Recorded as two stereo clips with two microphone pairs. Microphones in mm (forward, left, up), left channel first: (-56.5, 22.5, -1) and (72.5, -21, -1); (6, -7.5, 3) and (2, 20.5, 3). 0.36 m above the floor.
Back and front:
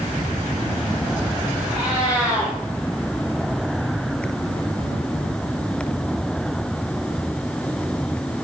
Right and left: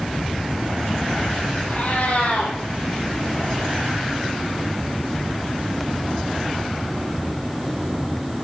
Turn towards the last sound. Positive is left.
turn(degrees=-105)